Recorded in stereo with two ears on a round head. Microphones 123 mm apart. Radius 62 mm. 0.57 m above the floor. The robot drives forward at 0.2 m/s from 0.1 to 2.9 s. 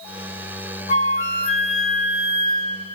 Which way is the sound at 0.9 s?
50° left (ahead or behind).